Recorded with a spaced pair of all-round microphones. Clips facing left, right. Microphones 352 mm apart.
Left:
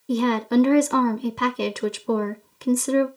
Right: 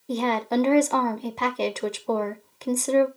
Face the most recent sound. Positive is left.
turn(degrees=20)  # may be behind; listen again after turning